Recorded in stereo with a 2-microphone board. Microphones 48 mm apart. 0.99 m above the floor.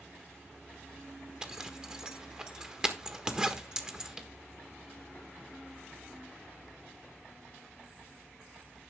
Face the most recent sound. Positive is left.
turn(degrees=-15)  # may be behind; listen again after turning